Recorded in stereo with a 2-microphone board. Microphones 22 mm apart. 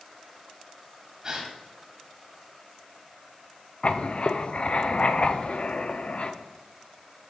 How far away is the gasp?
About 1.9 m.